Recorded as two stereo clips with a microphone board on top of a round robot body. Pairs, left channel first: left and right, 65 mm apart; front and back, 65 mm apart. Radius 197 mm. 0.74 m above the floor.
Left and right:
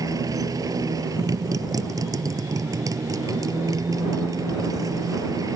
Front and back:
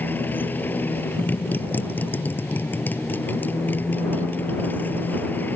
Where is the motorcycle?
60° right.